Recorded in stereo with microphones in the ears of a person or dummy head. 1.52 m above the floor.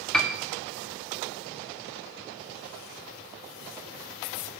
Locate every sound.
0.1 s a piano: 5° left (ahead or behind), 0.6 m